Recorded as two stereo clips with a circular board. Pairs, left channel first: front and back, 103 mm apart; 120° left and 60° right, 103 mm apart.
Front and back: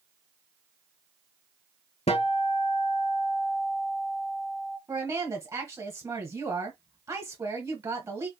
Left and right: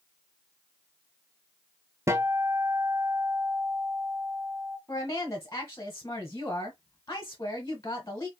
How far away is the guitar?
About 1.0 m.